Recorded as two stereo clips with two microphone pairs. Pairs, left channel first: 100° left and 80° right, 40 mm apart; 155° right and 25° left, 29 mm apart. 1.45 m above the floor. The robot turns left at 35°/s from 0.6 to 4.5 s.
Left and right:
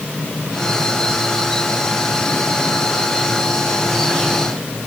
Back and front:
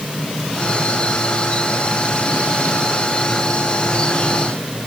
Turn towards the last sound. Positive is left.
No sound to turn to.